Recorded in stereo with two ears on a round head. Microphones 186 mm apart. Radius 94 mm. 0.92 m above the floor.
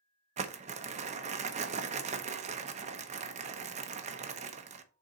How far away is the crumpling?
About 0.8 m.